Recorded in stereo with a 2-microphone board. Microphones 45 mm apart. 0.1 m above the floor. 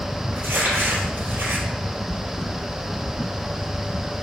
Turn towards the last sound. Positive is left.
turn(degrees=-55)  # may be behind; listen again after turning